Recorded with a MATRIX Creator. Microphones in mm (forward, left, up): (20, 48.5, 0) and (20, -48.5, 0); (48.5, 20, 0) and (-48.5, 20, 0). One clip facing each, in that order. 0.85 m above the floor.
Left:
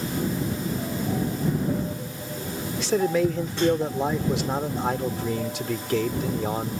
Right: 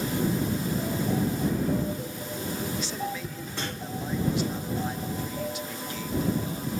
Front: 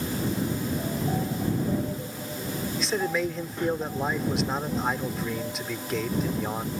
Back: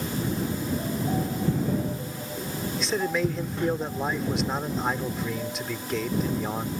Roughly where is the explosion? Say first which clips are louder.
Left 1 dB, even; behind.